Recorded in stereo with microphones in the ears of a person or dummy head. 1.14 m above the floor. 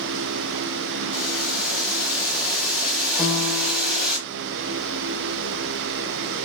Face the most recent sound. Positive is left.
turn(degrees=-5)  # may be behind; listen again after turning